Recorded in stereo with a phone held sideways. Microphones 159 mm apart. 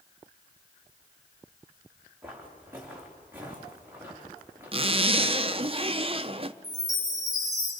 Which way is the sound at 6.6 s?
25° right (ahead or behind).